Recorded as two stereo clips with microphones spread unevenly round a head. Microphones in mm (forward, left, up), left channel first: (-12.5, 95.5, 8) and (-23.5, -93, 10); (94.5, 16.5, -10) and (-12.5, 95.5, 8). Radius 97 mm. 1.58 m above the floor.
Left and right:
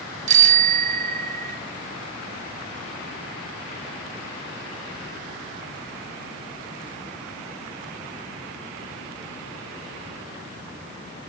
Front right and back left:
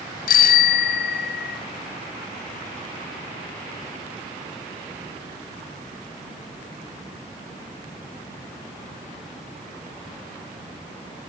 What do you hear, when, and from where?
0.3 s a bicycle bell: 40° right, 4.5 m